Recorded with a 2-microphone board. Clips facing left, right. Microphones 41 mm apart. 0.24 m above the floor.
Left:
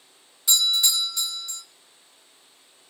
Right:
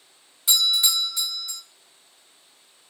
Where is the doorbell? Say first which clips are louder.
Right 1 dB; 10° right (ahead or behind), 1.4 m.